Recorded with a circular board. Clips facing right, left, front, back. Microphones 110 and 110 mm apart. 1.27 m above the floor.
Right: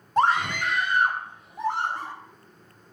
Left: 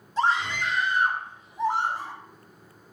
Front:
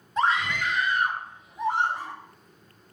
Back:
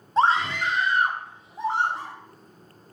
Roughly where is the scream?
Behind right.